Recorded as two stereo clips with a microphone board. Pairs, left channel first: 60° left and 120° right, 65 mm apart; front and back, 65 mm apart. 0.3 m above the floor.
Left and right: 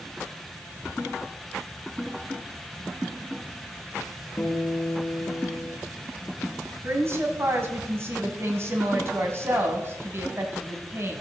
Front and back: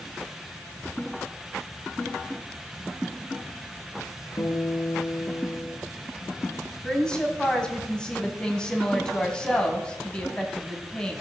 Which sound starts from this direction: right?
A woman speaking, at 6.8 s.